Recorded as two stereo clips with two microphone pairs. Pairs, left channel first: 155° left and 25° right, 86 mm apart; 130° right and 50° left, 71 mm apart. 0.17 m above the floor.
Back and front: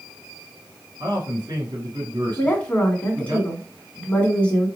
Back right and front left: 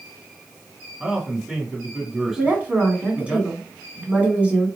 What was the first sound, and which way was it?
A man speaking, 35° right.